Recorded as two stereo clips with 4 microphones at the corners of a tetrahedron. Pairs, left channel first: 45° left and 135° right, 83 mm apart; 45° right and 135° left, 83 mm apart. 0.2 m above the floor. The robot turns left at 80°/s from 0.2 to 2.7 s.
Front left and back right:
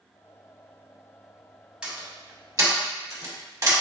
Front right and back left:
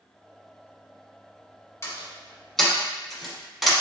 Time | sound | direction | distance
1.8 | a door slam | 65° right | 1.1 m